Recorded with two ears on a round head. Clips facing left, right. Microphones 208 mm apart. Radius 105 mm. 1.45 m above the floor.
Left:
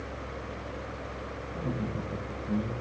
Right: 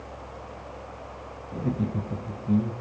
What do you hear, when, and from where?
1.5 s laughter: 30° right (ahead or behind), 0.9 m